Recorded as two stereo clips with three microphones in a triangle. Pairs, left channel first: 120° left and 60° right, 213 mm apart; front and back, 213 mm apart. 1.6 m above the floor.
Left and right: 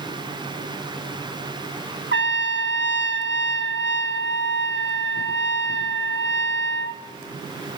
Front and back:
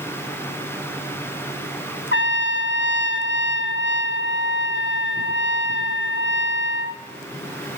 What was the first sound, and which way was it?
A trumpet, 30° right.